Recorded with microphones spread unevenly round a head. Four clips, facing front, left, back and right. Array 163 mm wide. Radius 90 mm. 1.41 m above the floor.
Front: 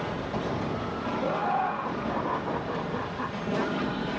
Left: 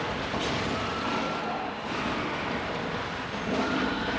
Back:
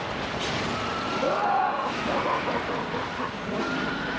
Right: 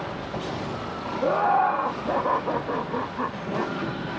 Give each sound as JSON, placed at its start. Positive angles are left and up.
{"t": 1.2, "sound": "laughter", "azimuth_deg": -115}